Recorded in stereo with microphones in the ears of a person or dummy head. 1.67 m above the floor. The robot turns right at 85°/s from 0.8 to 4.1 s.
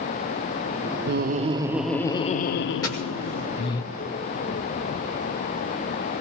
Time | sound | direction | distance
1.1 | laughter | 65° right | 0.8 m
2.8 | a dropped coin | 10° left (ahead or behind) | 1.5 m